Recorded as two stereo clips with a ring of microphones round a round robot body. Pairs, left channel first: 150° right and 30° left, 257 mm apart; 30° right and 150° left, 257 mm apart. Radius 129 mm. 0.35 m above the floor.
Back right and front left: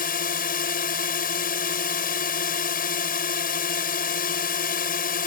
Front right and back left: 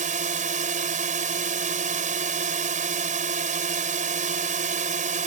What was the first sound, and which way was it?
A drone, 175° right.